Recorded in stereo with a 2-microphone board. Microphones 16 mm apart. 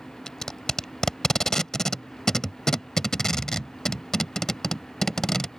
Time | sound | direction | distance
0.3 | tape being pulled | 35° left (ahead or behind) | ?